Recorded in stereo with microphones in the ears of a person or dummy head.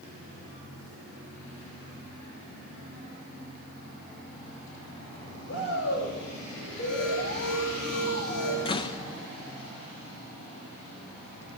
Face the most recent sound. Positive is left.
turn(degrees=30)  # may be behind; listen again after turning